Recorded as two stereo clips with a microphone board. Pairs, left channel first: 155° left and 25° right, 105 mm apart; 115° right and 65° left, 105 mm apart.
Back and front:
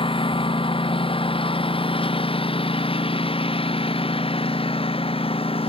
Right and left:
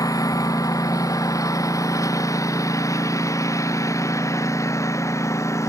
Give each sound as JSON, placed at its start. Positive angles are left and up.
{"t": 0.0, "sound": "a lawn mower", "azimuth_deg": -170}